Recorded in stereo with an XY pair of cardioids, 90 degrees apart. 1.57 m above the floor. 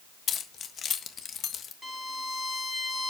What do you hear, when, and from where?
0.3 s keys jangling: 65° left, 1.5 m
1.8 s a violin: 20° left, 2.5 m